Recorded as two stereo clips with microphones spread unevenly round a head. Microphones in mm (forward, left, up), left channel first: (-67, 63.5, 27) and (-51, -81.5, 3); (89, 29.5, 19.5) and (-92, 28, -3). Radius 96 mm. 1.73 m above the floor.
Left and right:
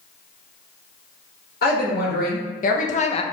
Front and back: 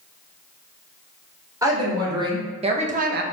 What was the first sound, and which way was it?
A woman speaking, 110° left.